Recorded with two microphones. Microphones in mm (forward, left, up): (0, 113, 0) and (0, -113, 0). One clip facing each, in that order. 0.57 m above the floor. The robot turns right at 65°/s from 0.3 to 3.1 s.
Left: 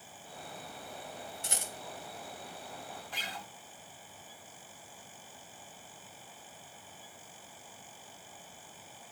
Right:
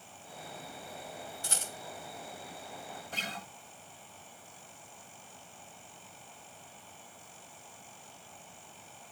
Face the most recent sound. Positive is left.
turn(degrees=-45)  # may be behind; listen again after turning